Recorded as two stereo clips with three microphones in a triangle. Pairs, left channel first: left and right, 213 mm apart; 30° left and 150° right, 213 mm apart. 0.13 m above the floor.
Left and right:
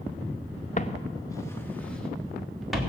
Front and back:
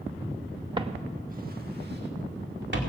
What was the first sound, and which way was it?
Footsteps, 145° left.